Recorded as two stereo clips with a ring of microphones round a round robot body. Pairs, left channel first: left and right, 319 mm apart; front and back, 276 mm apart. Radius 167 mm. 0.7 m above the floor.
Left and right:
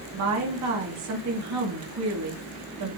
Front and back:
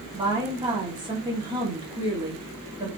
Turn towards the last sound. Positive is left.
turn(degrees=-110)